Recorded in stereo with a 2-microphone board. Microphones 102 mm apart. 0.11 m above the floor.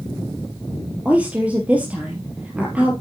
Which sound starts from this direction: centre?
A woman speaking, at 1.1 s.